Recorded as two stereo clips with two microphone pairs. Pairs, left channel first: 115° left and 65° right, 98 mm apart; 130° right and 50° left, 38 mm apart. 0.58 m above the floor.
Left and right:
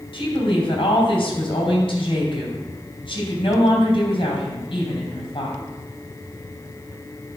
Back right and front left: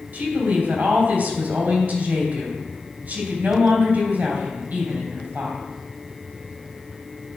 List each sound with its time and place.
0.1 s a woman speaking: 90° left, 3 m